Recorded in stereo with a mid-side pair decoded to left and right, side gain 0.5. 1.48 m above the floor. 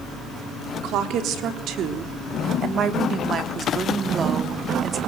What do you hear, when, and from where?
0.8 s a woman speaking: 70° right, 3.5 m; by 5.0 s 30° right, 3.5 m